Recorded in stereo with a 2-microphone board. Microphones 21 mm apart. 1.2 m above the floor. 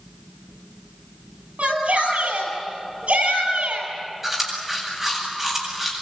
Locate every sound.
1.6 s a shout: 90° right, 9.5 m
4.2 s chewing: 10° right (ahead or behind), 8.5 m